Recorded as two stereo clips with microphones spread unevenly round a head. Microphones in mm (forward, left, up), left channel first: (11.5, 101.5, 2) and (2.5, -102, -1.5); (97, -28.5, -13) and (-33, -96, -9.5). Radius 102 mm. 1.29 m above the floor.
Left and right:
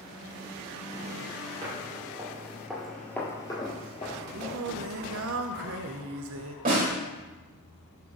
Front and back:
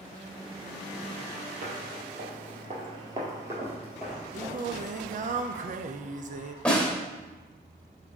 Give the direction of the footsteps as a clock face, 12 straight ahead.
5 o'clock.